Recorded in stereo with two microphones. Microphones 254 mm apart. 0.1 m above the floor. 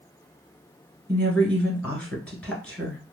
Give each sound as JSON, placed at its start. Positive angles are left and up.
{"t": 1.1, "sound": "a woman speaking", "side_deg": 5, "distance_m": 1.1}